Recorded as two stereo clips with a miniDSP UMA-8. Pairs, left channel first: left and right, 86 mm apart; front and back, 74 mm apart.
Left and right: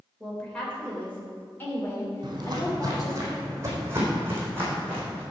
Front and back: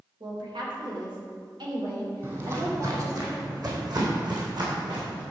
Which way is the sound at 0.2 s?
175° left.